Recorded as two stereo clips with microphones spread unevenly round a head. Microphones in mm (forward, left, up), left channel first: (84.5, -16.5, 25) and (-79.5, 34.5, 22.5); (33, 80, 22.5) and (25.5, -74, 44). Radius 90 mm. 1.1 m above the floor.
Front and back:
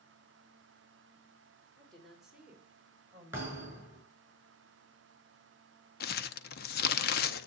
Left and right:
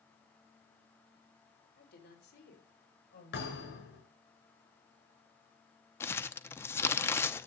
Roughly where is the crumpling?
Ahead.